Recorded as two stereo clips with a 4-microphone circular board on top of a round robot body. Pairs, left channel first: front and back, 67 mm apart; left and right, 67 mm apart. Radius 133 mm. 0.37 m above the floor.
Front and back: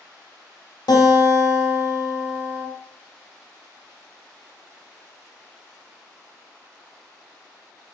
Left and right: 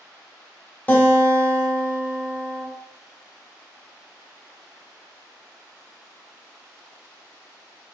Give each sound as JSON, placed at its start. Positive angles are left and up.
{"t": 0.9, "sound": "a guitar", "azimuth_deg": 25, "distance_m": 0.9}